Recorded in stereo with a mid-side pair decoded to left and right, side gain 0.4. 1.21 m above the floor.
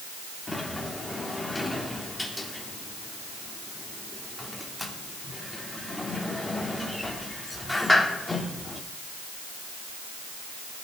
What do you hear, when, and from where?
0.5 s a sliding door: 10° left, 3 m